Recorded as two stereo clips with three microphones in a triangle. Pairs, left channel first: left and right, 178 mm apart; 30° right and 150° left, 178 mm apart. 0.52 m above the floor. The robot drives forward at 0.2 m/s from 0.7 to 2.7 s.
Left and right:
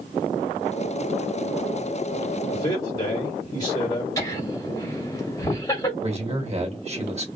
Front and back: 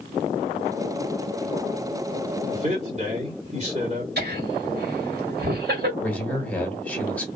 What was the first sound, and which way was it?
A man speaking, 140° left.